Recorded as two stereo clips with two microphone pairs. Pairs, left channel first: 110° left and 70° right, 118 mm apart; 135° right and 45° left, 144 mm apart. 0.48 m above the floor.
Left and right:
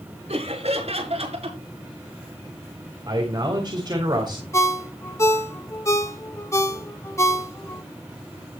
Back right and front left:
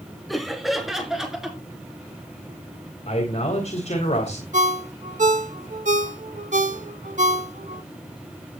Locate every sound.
0.3 s laughter: 45° right, 5 m
3.1 s a man speaking: 110° right, 3 m
4.5 s a ringtone: 50° left, 1.2 m